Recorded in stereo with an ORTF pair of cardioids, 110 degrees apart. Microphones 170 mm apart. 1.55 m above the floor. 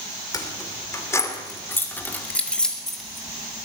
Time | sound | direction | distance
0.3 | keys jangling | 20° left | 3 m